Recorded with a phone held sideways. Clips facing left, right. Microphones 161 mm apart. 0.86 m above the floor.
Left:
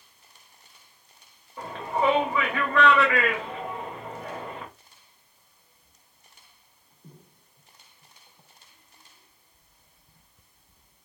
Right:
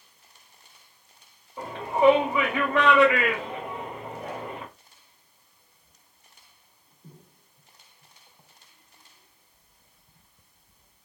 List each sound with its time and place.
1.6 s a shout: 20° right (ahead or behind), 2.0 m